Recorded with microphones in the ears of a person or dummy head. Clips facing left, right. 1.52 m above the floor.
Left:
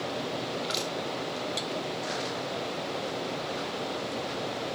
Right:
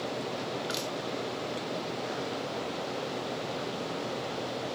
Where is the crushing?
15° right (ahead or behind), 1.8 m.